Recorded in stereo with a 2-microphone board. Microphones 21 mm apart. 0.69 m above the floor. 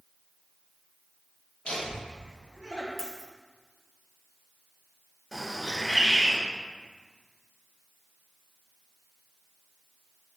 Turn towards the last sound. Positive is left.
turn(degrees=5)  # may be behind; listen again after turning